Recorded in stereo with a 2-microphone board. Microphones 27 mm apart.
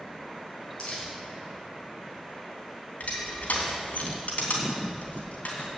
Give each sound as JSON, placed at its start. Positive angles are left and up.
{"t": 0.8, "sound": "crumpling", "side_deg": 50, "distance_m": 5.0}
{"t": 3.0, "sound": "crushing", "side_deg": 85, "distance_m": 3.0}